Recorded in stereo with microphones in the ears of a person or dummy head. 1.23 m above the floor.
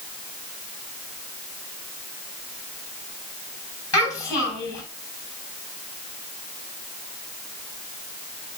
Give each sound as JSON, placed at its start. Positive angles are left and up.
{"t": 3.9, "sound": "a child speaking", "side_deg": 20, "distance_m": 6.5}